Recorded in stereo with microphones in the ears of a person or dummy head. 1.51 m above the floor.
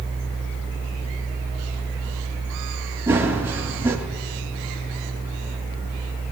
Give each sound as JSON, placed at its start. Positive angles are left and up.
{"t": 3.1, "sound": "running footsteps", "side_deg": -15, "distance_m": 2.0}